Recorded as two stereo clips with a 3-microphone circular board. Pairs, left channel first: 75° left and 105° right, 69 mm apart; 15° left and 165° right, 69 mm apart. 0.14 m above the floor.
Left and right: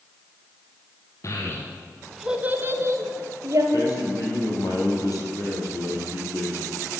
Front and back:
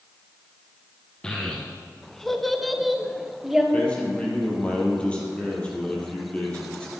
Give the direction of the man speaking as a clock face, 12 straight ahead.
9 o'clock.